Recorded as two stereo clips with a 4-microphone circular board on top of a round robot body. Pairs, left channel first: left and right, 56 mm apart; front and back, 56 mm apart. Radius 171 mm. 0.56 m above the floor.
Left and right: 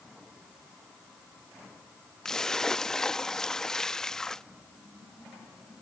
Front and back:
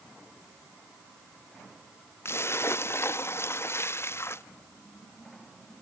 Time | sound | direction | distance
2.2 | a splash | 10° left | ?